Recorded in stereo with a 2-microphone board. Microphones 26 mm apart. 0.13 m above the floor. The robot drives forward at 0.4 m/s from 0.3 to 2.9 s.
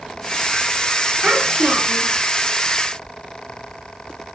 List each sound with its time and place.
1.2 s a child speaking: 50° right (ahead or behind), 0.9 m